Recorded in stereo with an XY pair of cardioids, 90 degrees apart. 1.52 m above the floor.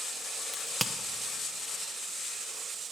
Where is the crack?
5° left, 0.8 m.